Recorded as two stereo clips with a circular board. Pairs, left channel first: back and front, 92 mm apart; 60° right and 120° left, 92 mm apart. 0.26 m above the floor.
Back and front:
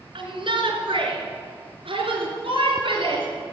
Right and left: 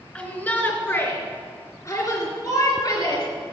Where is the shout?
15° left, 3 m; by 3.3 s 20° right, 4 m.